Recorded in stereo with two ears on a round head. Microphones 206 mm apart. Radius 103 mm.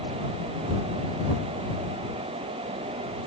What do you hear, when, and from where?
Only background noise.